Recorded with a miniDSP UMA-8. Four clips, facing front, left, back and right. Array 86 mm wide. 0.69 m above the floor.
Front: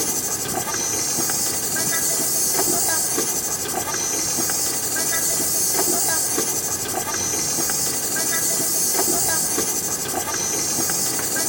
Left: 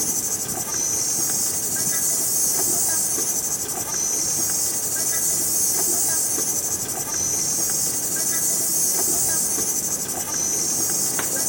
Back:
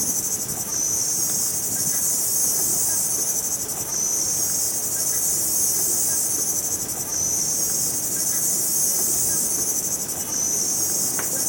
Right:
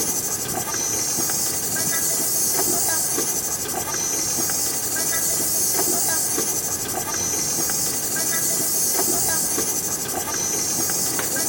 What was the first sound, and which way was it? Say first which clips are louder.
An insect: right 3 dB, front 6 dB; 25° right.